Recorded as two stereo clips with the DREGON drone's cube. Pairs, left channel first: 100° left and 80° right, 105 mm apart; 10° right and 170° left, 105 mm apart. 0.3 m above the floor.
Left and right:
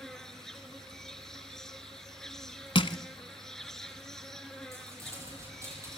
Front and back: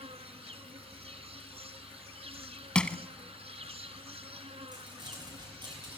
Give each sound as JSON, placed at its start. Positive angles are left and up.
{"t": 0.0, "sound": "an insect", "azimuth_deg": -175, "distance_m": 1.8}
{"t": 2.8, "sound": "crushing", "azimuth_deg": 70, "distance_m": 0.9}
{"t": 4.7, "sound": "crumpling", "azimuth_deg": -140, "distance_m": 10.0}